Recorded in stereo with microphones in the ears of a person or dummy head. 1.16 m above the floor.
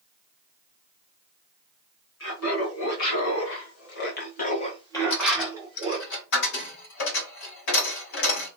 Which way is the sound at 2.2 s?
80° left.